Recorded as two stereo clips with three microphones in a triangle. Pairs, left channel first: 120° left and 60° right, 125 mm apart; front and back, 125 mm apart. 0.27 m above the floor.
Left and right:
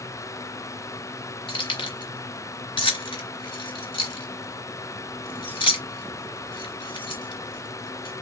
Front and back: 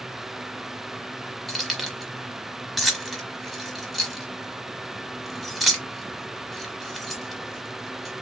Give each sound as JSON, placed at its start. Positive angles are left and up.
{"t": 1.5, "sound": "keys jangling", "azimuth_deg": 90, "distance_m": 1.0}